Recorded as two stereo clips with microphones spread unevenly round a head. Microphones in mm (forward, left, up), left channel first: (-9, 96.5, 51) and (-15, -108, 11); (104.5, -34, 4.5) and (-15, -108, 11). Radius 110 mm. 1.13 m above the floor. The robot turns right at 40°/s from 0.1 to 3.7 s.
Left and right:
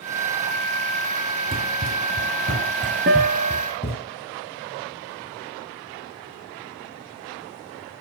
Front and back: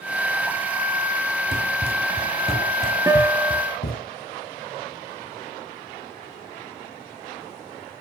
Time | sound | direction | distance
1.5 | running footsteps | 145° right | 2 m
3.1 | a guitar | 110° right | 1.0 m